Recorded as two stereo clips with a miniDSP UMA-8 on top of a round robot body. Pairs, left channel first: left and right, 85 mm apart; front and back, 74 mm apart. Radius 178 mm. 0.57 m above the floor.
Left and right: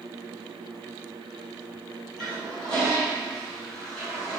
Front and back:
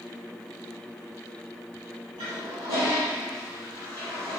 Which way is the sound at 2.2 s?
175° left.